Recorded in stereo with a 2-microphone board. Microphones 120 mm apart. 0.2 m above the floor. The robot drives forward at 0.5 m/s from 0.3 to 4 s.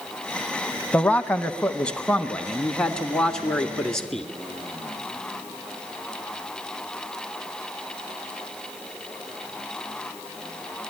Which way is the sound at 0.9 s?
10° left (ahead or behind).